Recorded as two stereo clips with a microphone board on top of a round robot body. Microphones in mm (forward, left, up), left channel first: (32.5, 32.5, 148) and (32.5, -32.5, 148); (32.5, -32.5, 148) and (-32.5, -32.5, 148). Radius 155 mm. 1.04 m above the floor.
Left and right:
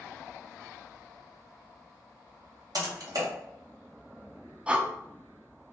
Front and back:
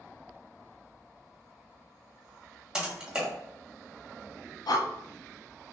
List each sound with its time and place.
2.8 s typing on a keyboard: 100° right, 2.0 m
4.7 s breathing: 15° right, 0.7 m